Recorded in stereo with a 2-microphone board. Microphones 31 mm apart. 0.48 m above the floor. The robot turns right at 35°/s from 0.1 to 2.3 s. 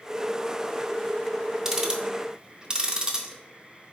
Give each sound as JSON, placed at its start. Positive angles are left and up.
{"t": 1.6, "sound": "ticking", "side_deg": -15, "distance_m": 0.5}